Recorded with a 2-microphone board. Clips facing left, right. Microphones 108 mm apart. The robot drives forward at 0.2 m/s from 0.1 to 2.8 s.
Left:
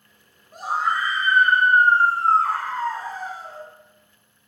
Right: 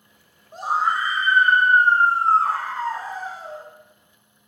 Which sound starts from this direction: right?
A scream, at 0.5 s.